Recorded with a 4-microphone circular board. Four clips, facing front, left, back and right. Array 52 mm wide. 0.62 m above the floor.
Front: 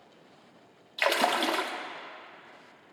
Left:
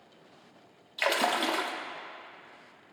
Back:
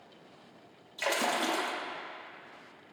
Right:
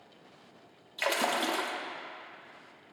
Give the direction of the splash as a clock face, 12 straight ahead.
11 o'clock.